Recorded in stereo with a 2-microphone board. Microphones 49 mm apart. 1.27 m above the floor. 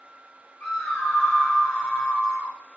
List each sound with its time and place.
0.6 s a scream: 10° left (ahead or behind), 1.6 m